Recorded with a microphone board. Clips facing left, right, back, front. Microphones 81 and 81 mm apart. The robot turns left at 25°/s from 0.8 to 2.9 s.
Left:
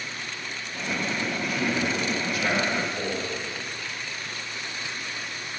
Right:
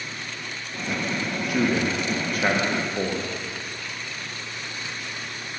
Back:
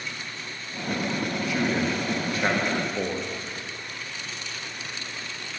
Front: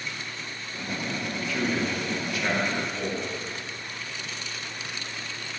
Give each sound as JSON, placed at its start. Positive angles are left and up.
{"t": 1.5, "sound": "a man speaking", "azimuth_deg": -105, "distance_m": 1.3}